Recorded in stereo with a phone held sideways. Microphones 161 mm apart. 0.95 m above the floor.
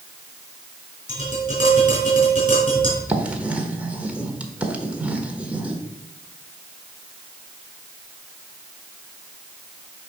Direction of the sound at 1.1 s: 40° left (ahead or behind).